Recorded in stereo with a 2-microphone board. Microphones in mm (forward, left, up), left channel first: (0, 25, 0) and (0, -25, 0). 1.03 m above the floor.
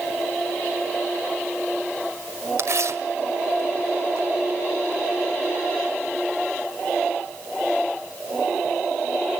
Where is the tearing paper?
70° right (ahead or behind), 1.8 m.